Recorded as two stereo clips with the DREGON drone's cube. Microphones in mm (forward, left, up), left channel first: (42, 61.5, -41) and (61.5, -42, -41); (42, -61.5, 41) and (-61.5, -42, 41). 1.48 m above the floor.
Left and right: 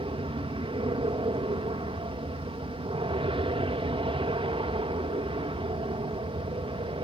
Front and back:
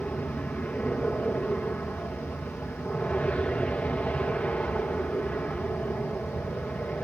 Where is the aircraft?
85° right.